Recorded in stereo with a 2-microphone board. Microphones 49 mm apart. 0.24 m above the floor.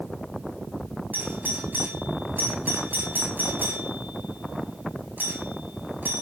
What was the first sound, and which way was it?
A doorbell, 40° right (ahead or behind).